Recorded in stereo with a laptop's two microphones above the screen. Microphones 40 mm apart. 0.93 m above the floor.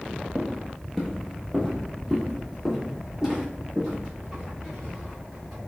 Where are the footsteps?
20° left (ahead or behind), 1.1 m; by 5.6 s 30° right (ahead or behind), 3.5 m.